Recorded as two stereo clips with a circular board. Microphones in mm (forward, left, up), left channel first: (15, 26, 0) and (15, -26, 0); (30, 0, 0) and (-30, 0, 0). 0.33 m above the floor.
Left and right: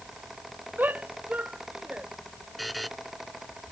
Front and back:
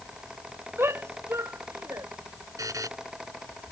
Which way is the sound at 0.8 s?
140° right.